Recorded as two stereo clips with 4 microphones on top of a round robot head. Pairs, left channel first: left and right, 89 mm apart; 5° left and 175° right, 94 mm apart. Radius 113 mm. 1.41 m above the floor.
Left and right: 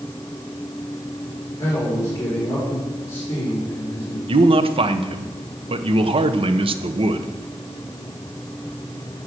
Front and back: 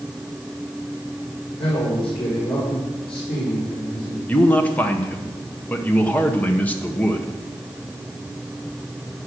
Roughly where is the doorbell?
No doorbell in this recording.